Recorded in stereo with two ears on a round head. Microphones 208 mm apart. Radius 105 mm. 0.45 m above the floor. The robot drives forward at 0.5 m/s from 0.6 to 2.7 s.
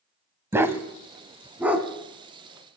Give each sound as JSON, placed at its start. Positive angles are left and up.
{"t": 0.5, "sound": "a dog barking", "side_deg": -10, "distance_m": 1.0}